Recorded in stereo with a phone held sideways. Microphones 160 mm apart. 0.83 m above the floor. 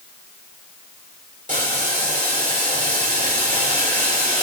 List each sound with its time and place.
1.5 s boiling: 50° right (ahead or behind), 3 m